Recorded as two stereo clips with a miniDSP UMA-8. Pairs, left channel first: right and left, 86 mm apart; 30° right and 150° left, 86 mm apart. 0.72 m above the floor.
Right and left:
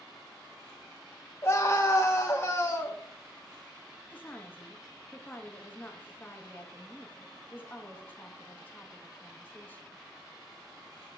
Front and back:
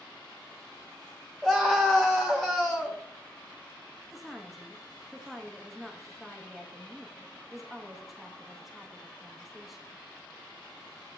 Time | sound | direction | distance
1.4 | a scream | 115° right | 0.7 m
4.1 | a woman speaking | 120° right | 1.0 m